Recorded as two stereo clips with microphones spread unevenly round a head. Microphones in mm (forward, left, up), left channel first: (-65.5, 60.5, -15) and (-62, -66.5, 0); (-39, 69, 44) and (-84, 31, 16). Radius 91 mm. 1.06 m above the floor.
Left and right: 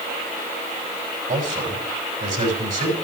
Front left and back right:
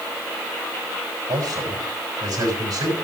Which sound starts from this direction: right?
A man speaking, at 1.3 s.